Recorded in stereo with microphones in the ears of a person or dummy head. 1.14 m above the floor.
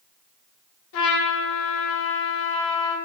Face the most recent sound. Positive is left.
turn(degrees=65)  # may be behind; listen again after turning